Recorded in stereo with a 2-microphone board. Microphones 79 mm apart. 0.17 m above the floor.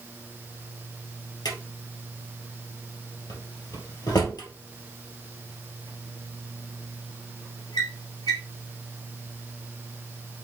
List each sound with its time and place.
1.4 s a drawer: 55° left (ahead or behind), 2 m